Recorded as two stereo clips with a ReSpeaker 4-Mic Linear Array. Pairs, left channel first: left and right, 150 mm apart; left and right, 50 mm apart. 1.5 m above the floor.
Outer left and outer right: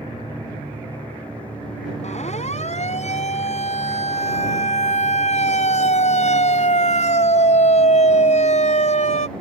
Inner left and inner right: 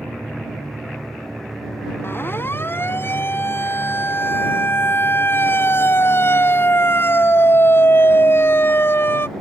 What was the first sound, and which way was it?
A siren, 50° left (ahead or behind).